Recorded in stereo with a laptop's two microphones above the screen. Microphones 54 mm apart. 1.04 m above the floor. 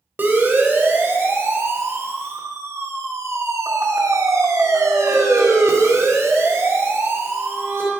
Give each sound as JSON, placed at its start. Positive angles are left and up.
{"t": 0.2, "sound": "a siren", "side_deg": -35, "distance_m": 3.5}